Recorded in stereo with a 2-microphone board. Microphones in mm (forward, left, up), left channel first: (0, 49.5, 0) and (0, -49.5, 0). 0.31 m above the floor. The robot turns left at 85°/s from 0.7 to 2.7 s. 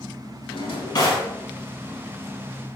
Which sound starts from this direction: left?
A drawer, at 0.5 s.